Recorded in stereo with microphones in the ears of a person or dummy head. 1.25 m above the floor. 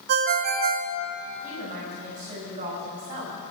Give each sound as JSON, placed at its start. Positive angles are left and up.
{"t": 0.1, "sound": "a ringtone", "side_deg": -55, "distance_m": 0.8}
{"t": 1.4, "sound": "a woman speaking", "side_deg": -50, "distance_m": 5.5}